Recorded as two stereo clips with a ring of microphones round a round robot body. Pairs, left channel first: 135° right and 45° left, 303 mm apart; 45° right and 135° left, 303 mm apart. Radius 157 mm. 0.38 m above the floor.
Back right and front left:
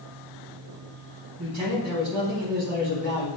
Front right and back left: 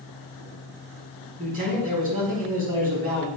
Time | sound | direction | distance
1.4 | a man speaking | 75° left | 4 m